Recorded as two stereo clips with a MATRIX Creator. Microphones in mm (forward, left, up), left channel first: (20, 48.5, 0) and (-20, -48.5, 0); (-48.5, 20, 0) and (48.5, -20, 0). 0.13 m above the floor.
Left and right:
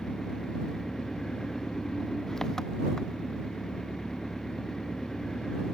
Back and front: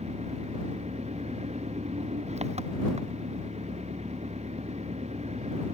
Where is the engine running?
20° right.